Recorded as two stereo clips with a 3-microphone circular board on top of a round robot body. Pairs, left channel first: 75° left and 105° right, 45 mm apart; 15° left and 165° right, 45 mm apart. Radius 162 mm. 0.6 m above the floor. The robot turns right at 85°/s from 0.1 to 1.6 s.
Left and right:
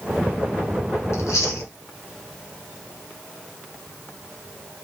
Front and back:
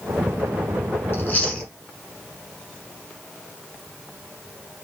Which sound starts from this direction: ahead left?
Chewing, at 1.1 s.